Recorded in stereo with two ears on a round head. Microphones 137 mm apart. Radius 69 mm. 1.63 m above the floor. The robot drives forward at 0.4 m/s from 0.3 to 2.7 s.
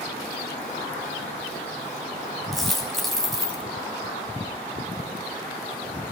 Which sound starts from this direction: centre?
A dropped coin, at 2.5 s.